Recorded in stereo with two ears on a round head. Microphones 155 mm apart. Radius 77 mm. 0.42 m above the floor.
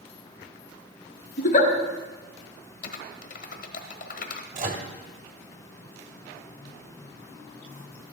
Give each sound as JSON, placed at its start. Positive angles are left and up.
{"t": 1.4, "sound": "a giggle", "side_deg": 45, "distance_m": 1.6}
{"t": 2.8, "sound": "typing on a keyboard", "side_deg": 50, "distance_m": 1.2}
{"t": 4.5, "sound": "a microwave", "side_deg": -45, "distance_m": 1.5}